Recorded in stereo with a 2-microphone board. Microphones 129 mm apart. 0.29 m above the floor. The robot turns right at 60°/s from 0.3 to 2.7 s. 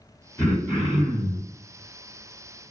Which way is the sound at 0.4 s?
30° left.